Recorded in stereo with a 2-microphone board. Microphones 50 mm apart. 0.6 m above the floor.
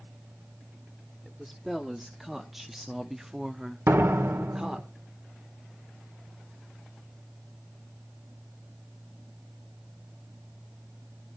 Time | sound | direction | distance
1.2 | a woman speaking | 5° left (ahead or behind) | 1.6 m
3.9 | a door slam | 60° right (ahead or behind) | 1.6 m